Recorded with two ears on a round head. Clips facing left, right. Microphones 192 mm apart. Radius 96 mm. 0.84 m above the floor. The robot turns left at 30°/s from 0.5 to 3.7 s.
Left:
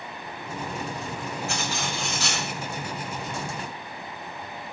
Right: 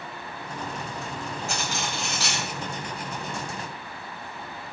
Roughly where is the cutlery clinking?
Right.